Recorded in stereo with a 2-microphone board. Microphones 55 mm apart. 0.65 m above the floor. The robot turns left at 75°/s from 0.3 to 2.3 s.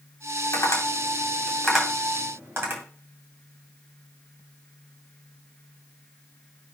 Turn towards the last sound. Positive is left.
turn(degrees=-45)  # may be behind; listen again after turning